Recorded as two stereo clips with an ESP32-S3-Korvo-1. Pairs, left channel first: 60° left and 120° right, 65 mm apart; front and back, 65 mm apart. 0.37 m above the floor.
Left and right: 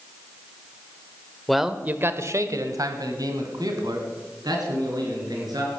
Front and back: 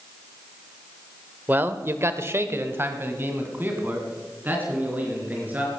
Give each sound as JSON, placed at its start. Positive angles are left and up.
{"t": 1.5, "sound": "a man speaking", "azimuth_deg": 145, "distance_m": 0.9}